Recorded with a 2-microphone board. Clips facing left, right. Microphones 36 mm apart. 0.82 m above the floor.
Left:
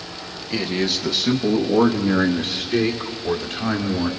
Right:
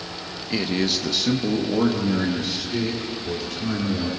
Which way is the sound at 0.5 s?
5° right (ahead or behind).